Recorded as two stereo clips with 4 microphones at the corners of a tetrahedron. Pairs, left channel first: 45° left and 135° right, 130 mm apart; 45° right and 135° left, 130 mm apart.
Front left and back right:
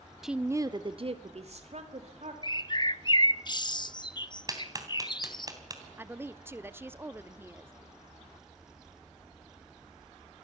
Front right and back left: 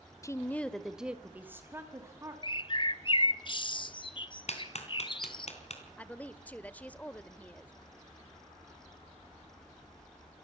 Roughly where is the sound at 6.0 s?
Right.